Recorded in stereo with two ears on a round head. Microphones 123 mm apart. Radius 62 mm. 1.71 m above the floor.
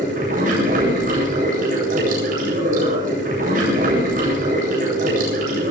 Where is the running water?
65° right (ahead or behind), 8 m.